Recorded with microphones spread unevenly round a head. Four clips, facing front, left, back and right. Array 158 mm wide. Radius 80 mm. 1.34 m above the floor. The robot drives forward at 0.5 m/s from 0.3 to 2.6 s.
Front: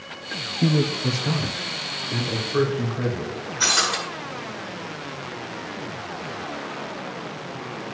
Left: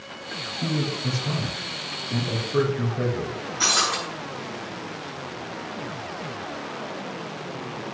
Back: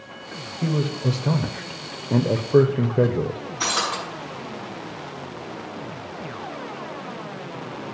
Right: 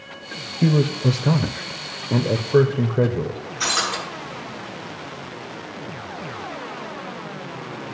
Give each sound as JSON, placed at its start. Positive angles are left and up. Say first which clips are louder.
{"t": 0.6, "sound": "a man speaking", "louder": "right 8 dB, front 2 dB", "azimuth_deg": -60, "distance_m": 0.8}
{"t": 3.6, "sound": "breaking glass", "louder": "even, front 1 dB", "azimuth_deg": 145, "distance_m": 6.0}